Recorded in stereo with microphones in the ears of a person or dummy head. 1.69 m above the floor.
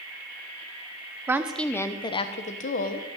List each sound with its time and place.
1.3 s a woman speaking: 10° right (ahead or behind), 0.8 m; by 3.1 s 50° left (ahead or behind), 1.3 m